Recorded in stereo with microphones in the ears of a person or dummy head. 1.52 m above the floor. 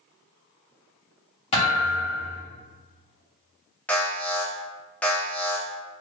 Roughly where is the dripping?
No dripping in this recording.